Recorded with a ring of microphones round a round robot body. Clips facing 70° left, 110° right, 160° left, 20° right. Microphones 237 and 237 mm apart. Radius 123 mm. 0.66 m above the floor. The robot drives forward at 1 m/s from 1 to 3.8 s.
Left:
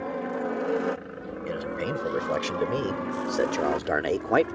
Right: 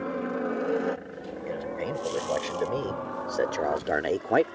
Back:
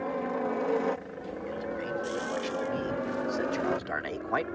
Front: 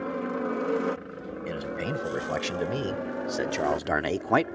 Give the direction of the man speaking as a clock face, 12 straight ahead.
12 o'clock.